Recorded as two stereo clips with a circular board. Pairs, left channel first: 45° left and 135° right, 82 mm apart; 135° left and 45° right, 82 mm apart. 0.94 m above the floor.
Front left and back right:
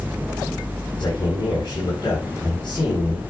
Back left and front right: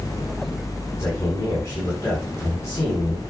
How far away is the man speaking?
About 7 m.